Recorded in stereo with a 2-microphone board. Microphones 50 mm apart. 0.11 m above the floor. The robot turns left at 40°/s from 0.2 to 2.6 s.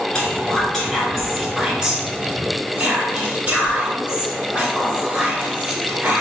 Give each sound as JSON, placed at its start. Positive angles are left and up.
{"t": 0.1, "sound": "whispering", "azimuth_deg": 40, "distance_m": 1.2}